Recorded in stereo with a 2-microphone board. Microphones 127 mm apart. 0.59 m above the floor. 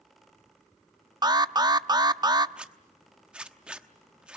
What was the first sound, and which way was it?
An alarm, 30° right (ahead or behind).